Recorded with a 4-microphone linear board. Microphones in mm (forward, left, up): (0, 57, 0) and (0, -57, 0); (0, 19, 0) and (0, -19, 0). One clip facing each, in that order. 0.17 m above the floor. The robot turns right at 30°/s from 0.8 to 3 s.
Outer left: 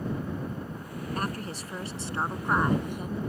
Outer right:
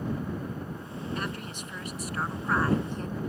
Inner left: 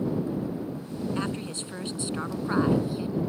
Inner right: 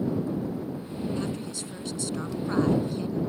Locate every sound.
1.1 s a woman speaking: 110° left; by 3.2 s 165° left